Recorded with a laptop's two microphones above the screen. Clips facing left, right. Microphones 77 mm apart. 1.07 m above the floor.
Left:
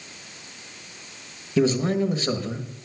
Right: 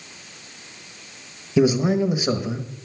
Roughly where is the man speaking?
Centre.